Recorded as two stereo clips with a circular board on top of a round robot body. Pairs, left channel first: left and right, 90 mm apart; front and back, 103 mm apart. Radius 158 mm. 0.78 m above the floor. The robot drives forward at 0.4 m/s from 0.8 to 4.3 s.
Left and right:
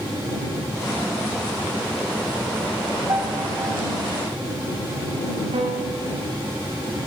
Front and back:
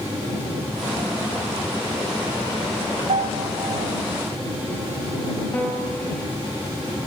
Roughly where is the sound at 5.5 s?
Right.